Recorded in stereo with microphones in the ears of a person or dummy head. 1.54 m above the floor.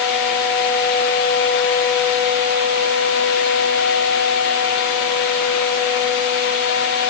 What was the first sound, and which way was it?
Only background noise.